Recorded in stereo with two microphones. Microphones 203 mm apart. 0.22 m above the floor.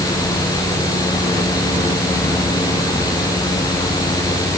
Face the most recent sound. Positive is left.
No sound to turn to.